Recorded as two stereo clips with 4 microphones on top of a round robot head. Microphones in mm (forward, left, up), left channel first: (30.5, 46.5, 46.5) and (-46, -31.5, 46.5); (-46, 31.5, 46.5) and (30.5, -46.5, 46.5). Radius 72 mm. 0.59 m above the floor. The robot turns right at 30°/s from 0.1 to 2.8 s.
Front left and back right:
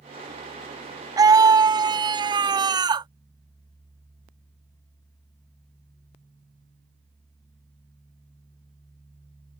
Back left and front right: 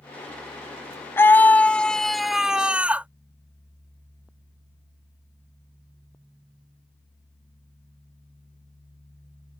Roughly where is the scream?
Behind.